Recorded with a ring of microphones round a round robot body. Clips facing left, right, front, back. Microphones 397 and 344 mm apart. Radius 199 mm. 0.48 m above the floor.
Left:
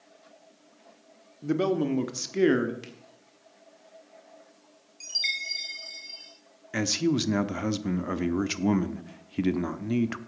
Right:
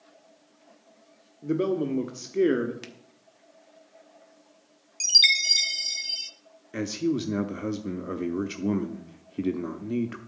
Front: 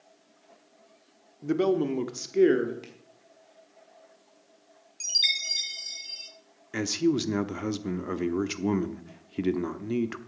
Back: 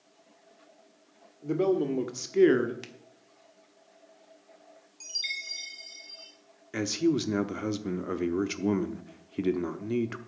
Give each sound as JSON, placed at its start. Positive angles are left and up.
{"t": 1.4, "sound": "a man speaking", "azimuth_deg": 25, "distance_m": 1.4}
{"t": 2.8, "sound": "a finger snap", "azimuth_deg": -145, "distance_m": 1.3}
{"t": 5.0, "sound": "a chime", "azimuth_deg": -60, "distance_m": 0.9}
{"t": 6.7, "sound": "a man speaking", "azimuth_deg": 75, "distance_m": 0.8}